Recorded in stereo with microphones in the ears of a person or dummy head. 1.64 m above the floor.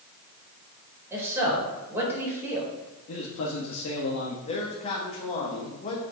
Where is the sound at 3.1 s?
85° left, 1.2 m.